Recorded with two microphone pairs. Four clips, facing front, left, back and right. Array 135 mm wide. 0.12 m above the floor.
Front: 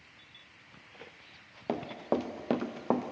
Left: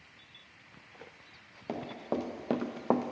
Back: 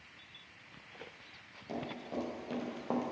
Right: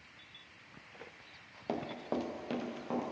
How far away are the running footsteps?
About 1.1 m.